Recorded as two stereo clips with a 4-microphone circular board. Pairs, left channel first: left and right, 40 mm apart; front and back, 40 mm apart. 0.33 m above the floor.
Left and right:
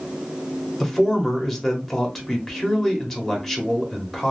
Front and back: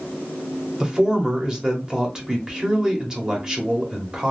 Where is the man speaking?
165° left, 1.1 m.